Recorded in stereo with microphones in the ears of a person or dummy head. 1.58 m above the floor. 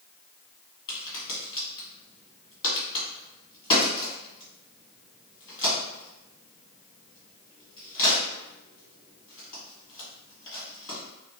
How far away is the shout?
I don't hear a shout.